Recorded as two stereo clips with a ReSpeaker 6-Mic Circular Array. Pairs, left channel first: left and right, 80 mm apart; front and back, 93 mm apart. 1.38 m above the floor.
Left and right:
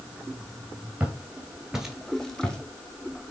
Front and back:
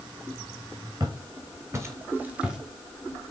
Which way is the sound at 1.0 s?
155° right.